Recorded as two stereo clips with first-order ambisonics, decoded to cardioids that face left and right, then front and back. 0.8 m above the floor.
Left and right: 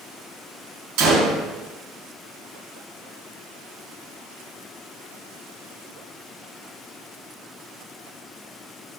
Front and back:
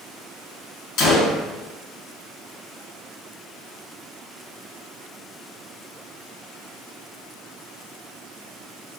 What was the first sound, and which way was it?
A gunshot, 50° right.